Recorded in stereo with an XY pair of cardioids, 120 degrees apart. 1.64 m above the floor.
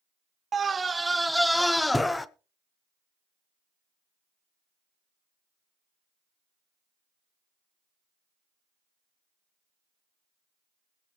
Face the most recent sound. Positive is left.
turn(degrees=15)